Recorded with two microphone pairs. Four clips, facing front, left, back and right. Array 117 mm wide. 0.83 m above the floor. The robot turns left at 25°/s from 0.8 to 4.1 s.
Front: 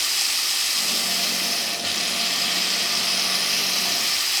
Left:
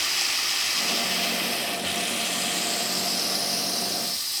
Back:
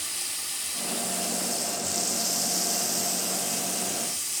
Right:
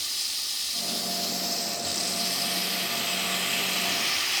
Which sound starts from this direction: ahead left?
Running water, at 0.0 s.